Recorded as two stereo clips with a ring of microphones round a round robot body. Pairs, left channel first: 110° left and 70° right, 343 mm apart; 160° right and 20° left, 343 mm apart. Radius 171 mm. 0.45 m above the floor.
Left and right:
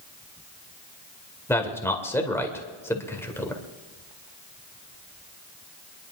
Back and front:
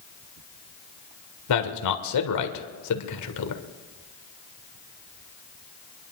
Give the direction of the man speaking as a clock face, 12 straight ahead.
6 o'clock.